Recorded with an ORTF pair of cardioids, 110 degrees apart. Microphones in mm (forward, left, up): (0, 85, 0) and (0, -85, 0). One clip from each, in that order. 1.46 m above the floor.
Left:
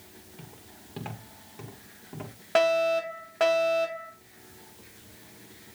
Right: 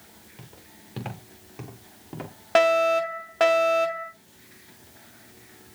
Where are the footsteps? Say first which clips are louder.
Right 1 dB; 15° right, 6 m; by 2.4 s 40° right, 6 m.